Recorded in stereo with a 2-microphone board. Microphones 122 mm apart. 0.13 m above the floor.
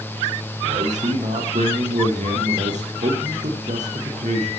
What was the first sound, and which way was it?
A man speaking, 80° right.